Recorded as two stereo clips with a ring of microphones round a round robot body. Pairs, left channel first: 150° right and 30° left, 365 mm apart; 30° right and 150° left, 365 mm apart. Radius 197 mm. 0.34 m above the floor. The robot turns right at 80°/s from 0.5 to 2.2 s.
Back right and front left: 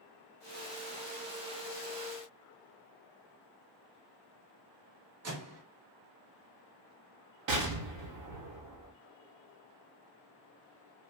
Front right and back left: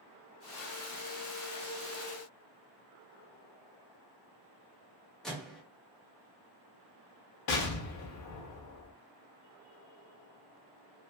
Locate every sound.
5.2 s a microwave: 60° left, 0.9 m
7.5 s an explosion: 5° left, 0.8 m